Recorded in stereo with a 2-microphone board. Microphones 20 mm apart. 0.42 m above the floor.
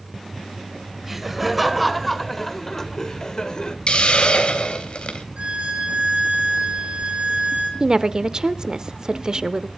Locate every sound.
1.0 s laughter: 10° right (ahead or behind), 2 m; by 3.8 s 40° left (ahead or behind), 1.5 m
3.9 s a hiss: 60° left (ahead or behind), 2.5 m
5.4 s a violin: 85° right, 5 m
7.8 s a woman speaking: 35° right (ahead or behind), 0.8 m